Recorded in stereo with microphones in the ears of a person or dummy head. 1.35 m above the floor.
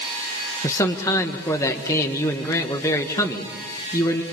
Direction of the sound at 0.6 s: 15° left (ahead or behind).